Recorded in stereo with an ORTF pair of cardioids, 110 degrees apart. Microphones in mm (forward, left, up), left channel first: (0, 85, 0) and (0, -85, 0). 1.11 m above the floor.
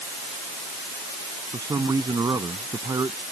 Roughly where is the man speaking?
Ahead.